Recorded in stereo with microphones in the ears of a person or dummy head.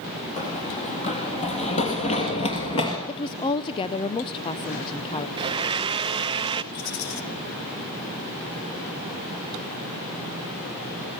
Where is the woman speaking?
25° left (ahead or behind), 0.6 m.